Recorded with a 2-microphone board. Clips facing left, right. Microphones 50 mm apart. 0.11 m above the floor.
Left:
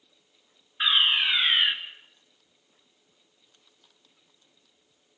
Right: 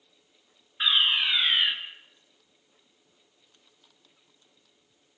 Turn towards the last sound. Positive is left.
turn(degrees=15)  # may be behind; listen again after turning